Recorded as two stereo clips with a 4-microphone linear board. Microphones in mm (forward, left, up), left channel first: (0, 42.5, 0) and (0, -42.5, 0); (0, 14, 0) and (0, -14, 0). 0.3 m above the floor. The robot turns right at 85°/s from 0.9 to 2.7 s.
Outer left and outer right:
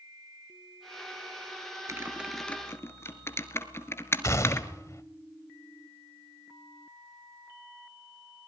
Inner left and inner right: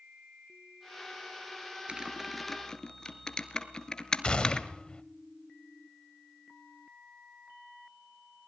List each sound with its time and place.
1.9 s typing on a keyboard: 40° right (ahead or behind), 1.7 m; by 4.7 s 30° left (ahead or behind), 1.7 m
4.2 s a gunshot: 35° left (ahead or behind), 1.4 m